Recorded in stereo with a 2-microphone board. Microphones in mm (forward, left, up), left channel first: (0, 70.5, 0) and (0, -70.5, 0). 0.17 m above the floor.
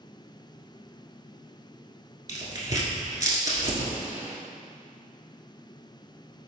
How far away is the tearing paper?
About 1.1 m.